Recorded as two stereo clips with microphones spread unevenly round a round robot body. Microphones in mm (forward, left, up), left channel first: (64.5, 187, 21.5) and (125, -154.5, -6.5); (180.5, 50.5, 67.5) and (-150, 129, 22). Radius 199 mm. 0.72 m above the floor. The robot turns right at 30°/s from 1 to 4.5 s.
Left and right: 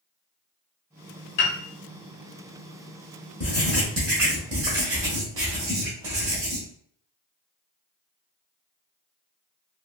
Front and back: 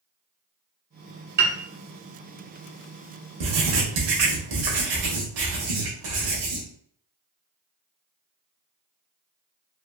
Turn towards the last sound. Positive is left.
turn(degrees=-160)